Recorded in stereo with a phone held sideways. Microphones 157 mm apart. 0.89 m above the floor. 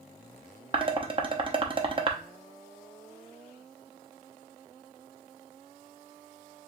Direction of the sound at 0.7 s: 35° right (ahead or behind).